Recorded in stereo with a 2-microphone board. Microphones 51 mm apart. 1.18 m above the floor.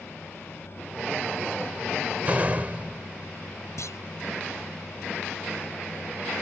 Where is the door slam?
30° right (ahead or behind).